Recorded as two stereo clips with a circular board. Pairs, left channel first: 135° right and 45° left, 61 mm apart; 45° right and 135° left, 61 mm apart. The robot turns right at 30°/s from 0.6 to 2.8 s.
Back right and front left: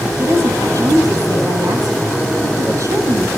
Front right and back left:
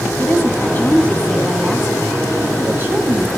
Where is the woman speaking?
10° left, 9.5 m; by 3.3 s 75° left, 9.5 m.